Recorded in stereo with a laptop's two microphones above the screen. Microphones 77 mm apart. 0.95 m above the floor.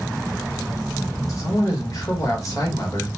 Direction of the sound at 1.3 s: 50° left (ahead or behind).